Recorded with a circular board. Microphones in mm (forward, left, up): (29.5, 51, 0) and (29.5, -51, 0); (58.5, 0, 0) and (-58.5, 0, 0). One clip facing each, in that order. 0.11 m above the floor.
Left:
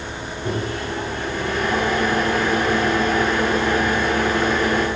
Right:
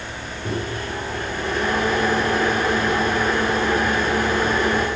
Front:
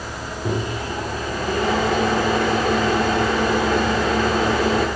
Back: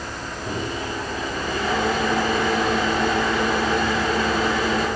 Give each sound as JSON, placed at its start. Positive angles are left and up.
{"t": 0.5, "sound": "a microwave", "azimuth_deg": 0, "distance_m": 7.0}